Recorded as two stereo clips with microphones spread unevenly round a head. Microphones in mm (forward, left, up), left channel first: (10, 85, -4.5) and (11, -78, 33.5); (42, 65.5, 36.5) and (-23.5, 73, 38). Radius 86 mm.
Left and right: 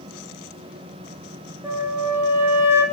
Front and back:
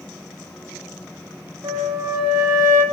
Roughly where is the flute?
Behind.